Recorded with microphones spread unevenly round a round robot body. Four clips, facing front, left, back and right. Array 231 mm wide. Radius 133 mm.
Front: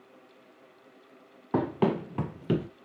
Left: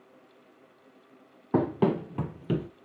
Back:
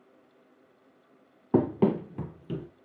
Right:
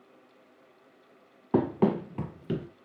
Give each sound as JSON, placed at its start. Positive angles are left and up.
{"t": 1.5, "sound": "running footsteps", "azimuth_deg": 170, "distance_m": 1.0}